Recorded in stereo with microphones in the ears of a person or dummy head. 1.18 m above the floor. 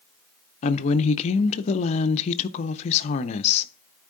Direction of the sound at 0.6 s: 40° left (ahead or behind).